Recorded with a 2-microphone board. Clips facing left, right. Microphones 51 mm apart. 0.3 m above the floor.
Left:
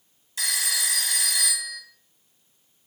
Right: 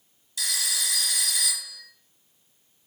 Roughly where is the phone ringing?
Left.